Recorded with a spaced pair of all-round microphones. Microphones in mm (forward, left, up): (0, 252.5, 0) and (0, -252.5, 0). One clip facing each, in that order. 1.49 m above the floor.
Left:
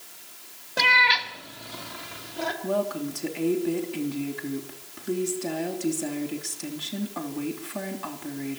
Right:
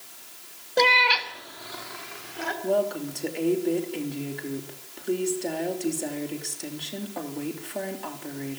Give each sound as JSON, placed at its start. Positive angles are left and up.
{"t": 0.8, "sound": "a cat meowing", "side_deg": 30, "distance_m": 1.0}
{"t": 2.6, "sound": "a woman speaking", "side_deg": 25, "distance_m": 3.0}